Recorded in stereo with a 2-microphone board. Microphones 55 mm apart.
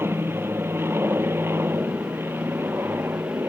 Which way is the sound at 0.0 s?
45° right (ahead or behind).